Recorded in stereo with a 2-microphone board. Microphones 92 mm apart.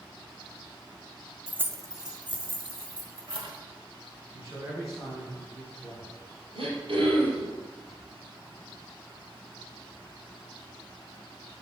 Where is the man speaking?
35° right (ahead or behind), 2.5 m.